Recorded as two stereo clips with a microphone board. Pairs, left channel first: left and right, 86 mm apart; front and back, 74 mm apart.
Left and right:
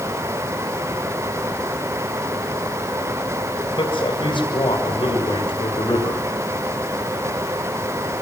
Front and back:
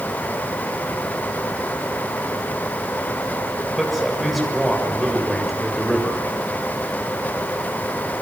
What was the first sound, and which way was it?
A man speaking, 95° left.